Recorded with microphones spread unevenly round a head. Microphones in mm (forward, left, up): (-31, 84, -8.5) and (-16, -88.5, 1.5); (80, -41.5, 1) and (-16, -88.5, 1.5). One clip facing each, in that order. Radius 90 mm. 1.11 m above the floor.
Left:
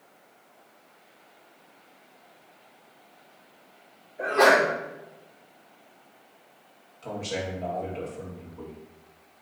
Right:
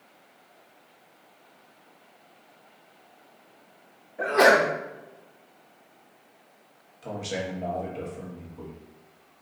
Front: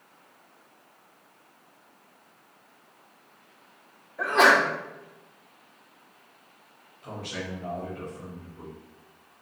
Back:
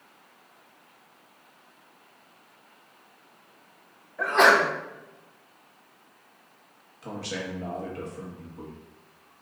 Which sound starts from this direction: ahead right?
A sneeze, at 4.2 s.